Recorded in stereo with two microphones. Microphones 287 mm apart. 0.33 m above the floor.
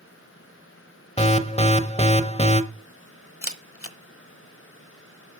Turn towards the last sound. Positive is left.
turn(degrees=50)  # may be behind; listen again after turning